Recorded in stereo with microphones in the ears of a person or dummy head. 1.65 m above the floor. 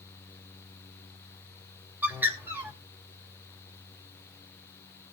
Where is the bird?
10° right (ahead or behind), 2.5 m.